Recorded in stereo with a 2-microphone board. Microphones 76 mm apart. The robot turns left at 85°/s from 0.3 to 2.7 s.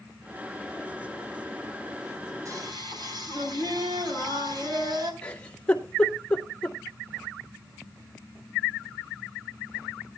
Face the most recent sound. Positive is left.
turn(degrees=15)  # may be behind; listen again after turning